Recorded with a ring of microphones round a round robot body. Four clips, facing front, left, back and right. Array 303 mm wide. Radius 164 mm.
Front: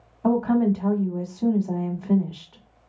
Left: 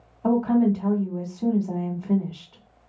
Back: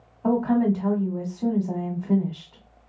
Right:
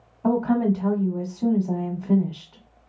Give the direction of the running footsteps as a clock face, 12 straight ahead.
I don't hear running footsteps.